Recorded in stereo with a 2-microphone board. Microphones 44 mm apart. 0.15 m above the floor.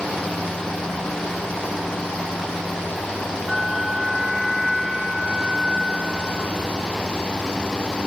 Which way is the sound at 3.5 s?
5° right (ahead or behind).